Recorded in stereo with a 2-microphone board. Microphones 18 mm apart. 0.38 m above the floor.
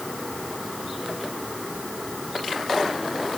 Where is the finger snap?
No finger snap in this recording.